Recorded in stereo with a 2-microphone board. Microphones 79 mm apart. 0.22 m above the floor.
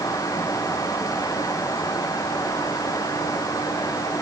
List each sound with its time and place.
Only background noise.